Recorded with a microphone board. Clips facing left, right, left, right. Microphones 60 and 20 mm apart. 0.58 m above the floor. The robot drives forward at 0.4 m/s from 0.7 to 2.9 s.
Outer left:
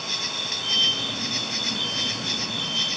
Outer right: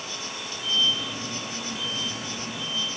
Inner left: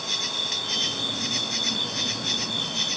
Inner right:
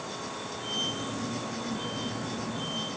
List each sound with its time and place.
0.0 s an insect: 75° left (ahead or behind); by 3.0 s 80° left